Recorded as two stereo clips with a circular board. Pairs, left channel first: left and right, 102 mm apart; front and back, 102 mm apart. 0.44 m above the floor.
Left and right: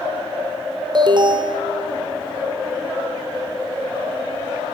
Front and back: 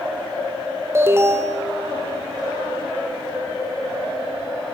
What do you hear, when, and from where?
0.9 s an alarm: 120° right, 1.1 m